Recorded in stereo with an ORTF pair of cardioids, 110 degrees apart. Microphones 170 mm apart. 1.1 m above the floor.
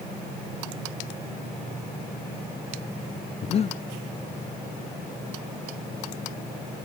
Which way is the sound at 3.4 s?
35° left.